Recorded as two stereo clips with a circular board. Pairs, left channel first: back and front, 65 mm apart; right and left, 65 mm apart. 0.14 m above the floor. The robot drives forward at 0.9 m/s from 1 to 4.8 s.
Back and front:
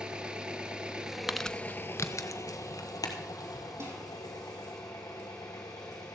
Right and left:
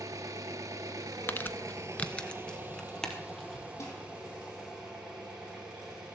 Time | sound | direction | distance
0.0 | an engine running | 75° left | 0.8 m
1.3 | crumpling | 80° right | 0.5 m
3.8 | dishes clattering | 45° right | 4 m